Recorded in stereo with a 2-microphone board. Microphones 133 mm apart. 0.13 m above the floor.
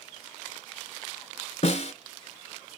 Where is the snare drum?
50° left (ahead or behind), 0.9 m.